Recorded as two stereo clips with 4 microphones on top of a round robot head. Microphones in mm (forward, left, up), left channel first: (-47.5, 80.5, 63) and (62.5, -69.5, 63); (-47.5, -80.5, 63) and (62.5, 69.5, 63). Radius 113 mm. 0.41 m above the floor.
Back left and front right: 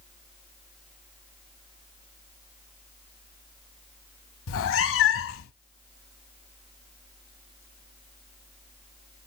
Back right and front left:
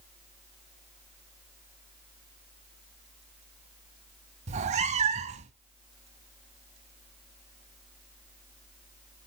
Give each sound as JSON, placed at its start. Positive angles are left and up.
{"t": 4.5, "sound": "a cat meowing", "azimuth_deg": 110, "distance_m": 0.6}